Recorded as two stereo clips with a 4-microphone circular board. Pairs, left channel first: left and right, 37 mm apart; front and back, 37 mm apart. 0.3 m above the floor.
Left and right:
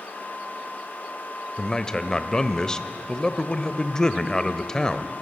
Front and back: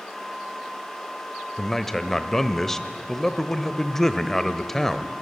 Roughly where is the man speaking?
Ahead left.